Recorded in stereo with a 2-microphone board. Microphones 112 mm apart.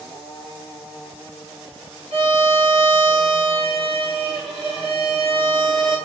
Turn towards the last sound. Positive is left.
turn(degrees=-75)  # may be behind; listen again after turning